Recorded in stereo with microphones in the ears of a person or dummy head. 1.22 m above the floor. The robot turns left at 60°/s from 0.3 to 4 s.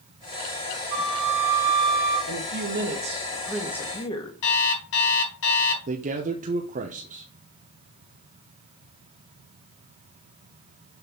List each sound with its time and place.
0.9 s a flute: 95° right, 5 m; by 2.2 s 170° right, 5 m
2.3 s a woman speaking: 100° right, 1.7 m; by 4.3 s 155° left, 1.7 m
4.4 s an alarm clock: 75° left (ahead or behind), 3.5 m
5.9 s a man speaking: 40° right (ahead or behind), 0.7 m